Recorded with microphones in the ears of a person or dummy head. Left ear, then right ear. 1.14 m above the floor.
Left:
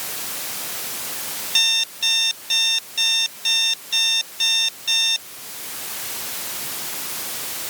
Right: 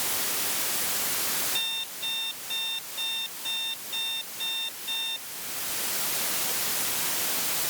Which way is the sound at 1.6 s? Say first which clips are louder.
Left 12 dB; 65° left (ahead or behind).